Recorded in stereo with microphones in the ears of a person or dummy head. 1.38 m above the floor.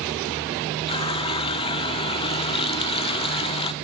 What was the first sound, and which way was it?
A running tap, 25° left (ahead or behind).